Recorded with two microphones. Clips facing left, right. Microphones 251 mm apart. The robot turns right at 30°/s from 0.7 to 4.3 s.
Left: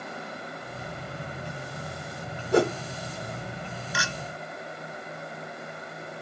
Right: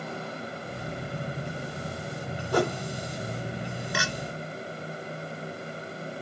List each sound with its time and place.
2.5 s a whoosh: 25° left (ahead or behind), 1.4 m
3.9 s a clink: 65° right (ahead or behind), 1.3 m; by 4.1 s 60° right (ahead or behind), 1.3 m